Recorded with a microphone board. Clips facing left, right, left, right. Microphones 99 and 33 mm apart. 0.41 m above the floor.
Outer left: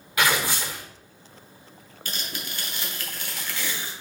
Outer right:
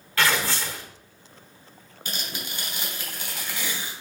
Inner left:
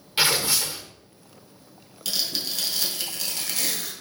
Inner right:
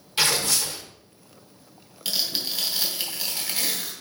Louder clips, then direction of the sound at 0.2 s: Even, inner left 1 dB; 15° left (ahead or behind).